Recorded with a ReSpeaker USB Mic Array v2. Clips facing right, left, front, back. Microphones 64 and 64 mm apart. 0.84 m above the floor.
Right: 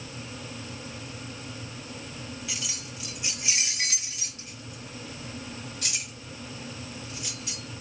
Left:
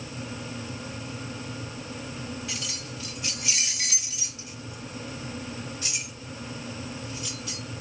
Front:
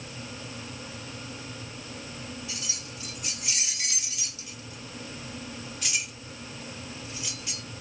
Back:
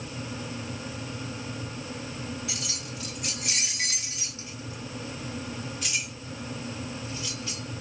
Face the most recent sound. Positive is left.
turn(degrees=-70)